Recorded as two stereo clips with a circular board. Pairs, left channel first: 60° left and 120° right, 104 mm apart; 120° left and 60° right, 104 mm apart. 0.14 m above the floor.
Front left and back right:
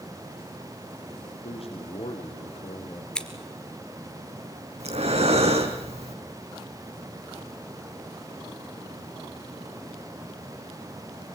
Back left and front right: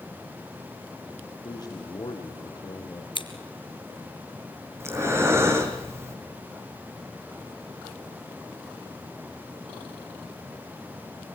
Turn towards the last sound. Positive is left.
turn(degrees=-125)